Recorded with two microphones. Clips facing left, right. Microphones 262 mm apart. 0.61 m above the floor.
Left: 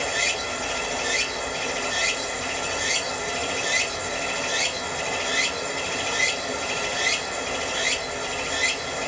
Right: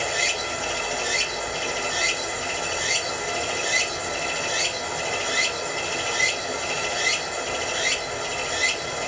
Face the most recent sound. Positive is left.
turn(degrees=-5)  # may be behind; listen again after turning